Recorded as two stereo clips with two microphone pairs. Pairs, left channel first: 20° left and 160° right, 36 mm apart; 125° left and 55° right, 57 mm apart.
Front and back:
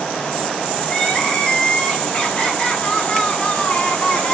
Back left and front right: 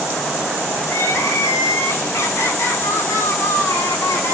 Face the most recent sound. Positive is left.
turn(degrees=85)